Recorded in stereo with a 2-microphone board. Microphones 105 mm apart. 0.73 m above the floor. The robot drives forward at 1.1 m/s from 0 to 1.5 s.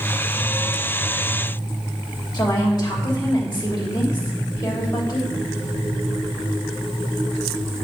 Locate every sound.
2.3 s a woman speaking: 40° left (ahead or behind), 3 m